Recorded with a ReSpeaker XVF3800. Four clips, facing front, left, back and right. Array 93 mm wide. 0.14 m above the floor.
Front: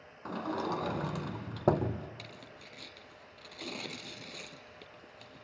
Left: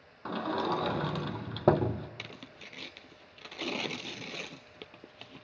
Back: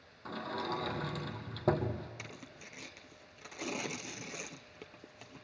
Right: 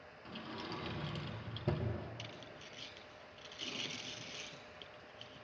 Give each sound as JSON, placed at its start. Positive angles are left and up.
{"t": 0.2, "sound": "a sliding door", "azimuth_deg": 75, "distance_m": 0.9}
{"t": 2.2, "sound": "tearing paper", "azimuth_deg": 110, "distance_m": 0.8}